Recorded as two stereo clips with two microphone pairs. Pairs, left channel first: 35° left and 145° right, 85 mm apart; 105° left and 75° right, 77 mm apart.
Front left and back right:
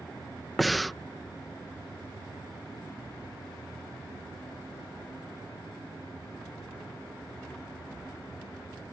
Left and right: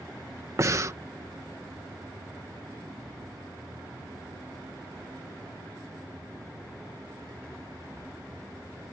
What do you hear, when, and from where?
0.6 s breathing: 55° right